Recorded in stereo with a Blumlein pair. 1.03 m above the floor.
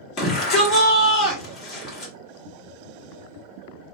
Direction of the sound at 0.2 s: 30° left.